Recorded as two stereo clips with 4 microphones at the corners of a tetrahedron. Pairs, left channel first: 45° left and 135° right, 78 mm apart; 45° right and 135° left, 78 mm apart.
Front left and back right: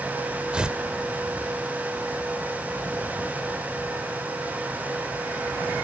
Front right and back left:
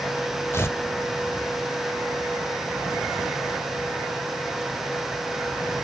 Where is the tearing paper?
65° right, 1.4 m.